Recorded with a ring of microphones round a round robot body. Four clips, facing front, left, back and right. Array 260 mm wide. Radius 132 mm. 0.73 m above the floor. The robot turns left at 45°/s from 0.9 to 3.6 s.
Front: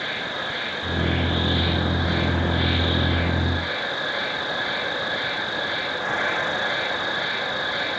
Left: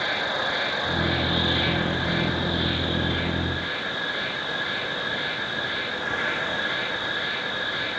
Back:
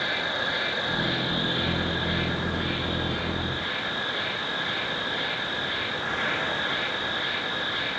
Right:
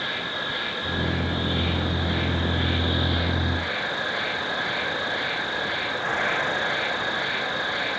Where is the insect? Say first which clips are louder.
Left 4 dB, even; 85° left, 0.7 m; by 8.0 s 35° right, 0.7 m.